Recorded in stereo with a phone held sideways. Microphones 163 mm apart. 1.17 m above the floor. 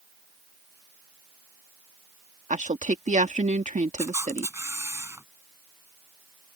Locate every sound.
2.5 s a woman speaking: 50° right (ahead or behind)
4.0 s a camera shutter: 15° right (ahead or behind)